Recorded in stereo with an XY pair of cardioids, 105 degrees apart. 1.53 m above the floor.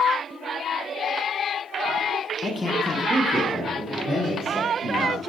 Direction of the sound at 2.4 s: 30° left.